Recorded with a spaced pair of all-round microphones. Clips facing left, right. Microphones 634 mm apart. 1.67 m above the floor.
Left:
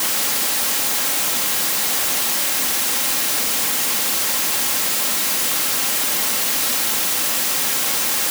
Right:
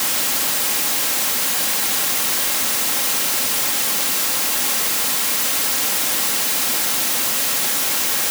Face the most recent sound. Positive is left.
No sound to turn to.